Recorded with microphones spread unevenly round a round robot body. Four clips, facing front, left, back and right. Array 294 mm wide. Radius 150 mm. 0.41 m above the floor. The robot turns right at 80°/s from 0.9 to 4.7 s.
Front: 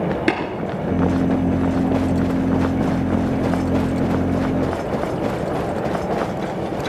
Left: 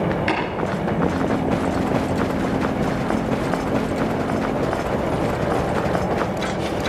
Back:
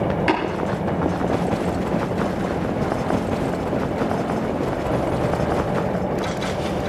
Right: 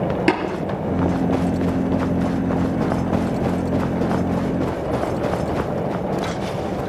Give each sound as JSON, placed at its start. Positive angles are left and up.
{"t": 0.3, "sound": "tapping", "azimuth_deg": -45, "distance_m": 3.5}